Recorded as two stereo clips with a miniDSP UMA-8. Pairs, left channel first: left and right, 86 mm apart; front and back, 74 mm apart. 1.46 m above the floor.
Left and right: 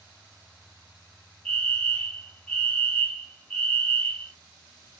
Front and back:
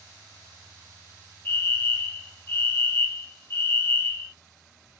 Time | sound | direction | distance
1.4 | a fire alarm | 15° left | 0.8 m